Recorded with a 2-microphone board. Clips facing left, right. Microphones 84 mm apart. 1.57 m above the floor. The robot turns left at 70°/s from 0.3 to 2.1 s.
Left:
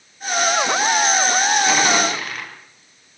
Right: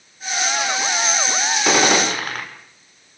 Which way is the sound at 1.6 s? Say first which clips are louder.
Right 1 dB; 100° right.